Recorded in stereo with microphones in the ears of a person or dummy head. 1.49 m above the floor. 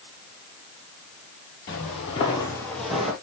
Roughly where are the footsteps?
Left.